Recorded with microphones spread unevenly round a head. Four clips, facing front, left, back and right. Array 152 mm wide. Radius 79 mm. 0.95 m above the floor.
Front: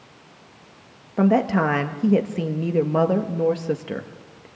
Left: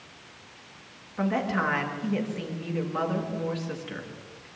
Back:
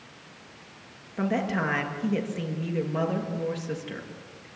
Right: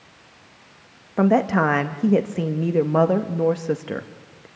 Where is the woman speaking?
50° right, 1.3 m.